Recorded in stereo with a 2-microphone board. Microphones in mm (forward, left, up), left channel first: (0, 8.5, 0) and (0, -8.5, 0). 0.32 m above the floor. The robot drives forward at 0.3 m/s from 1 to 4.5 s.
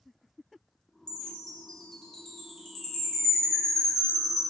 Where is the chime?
50° left (ahead or behind), 0.6 m; by 4.4 s 20° left (ahead or behind), 1.5 m.